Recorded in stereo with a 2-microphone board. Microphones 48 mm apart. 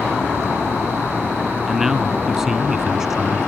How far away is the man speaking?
About 1.1 m.